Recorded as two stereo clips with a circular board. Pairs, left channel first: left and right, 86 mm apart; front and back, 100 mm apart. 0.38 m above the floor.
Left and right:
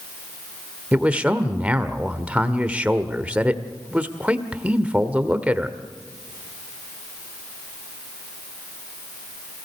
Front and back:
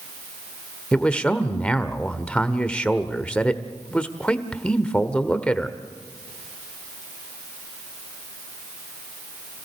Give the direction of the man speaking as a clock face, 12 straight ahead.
2 o'clock.